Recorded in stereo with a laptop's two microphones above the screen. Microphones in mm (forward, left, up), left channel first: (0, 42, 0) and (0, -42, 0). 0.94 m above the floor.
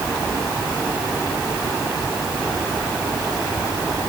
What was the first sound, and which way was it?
Only background noise.